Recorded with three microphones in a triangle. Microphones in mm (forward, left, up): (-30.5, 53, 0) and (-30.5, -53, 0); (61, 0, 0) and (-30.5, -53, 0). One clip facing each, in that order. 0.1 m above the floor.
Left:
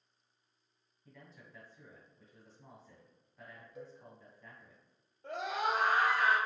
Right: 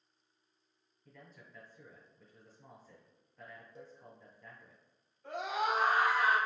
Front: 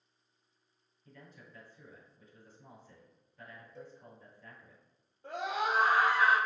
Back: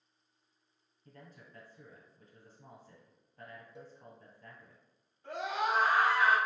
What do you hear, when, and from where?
1.1 s a man speaking: 175° left, 1.7 m
3.8 s a cowbell: 90° right, 0.7 m
5.2 s a scream: 55° left, 1.7 m